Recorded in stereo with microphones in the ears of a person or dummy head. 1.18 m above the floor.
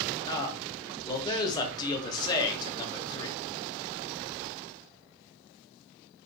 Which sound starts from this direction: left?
A man speaking, at 0.3 s.